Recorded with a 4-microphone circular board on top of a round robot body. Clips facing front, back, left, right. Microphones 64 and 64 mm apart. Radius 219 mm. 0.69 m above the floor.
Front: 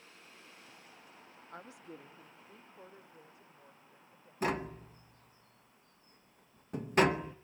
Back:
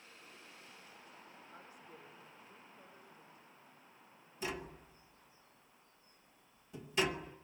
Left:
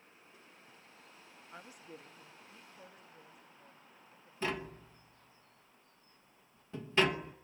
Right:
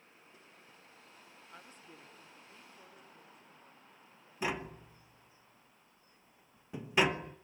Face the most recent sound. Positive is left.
turn(degrees=-20)